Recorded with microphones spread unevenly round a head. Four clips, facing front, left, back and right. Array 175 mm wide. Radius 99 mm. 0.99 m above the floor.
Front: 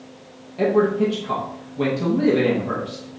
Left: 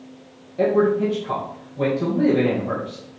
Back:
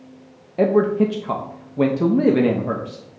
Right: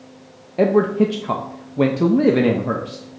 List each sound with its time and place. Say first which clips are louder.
0.6 s a man speaking: right 2 dB, back 1 dB; 95° right, 0.5 m